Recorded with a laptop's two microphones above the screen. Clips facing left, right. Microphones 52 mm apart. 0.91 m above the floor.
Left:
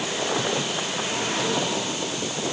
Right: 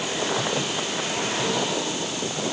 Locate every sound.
Only background noise.